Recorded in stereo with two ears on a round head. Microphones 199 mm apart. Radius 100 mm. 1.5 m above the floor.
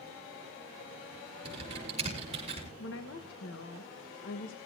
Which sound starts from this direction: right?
Typing on a keyboard, at 1.4 s.